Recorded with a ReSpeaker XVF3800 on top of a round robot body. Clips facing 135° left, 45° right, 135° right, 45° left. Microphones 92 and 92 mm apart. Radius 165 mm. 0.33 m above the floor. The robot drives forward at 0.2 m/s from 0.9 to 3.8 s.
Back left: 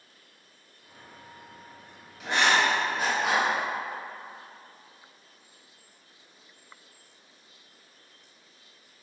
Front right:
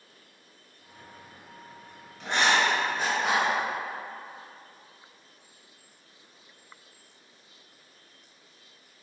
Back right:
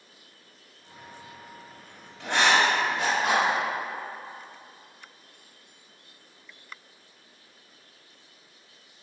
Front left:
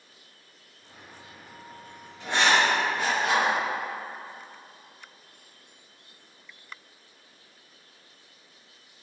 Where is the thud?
I don't hear a thud.